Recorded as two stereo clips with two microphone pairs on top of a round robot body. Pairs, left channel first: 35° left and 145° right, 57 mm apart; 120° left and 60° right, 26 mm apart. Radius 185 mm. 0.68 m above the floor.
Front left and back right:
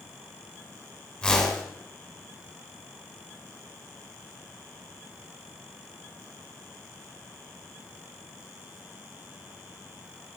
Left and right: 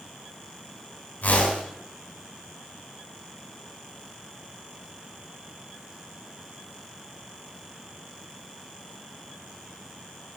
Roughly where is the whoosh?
Left.